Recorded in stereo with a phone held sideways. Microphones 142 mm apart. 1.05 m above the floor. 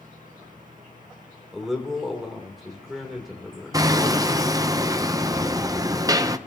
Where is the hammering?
25° right (ahead or behind), 0.6 m.